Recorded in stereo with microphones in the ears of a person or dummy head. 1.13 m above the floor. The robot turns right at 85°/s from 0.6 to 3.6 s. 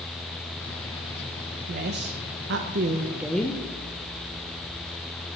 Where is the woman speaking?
140° right, 0.9 m; by 3.6 s 20° left, 0.9 m.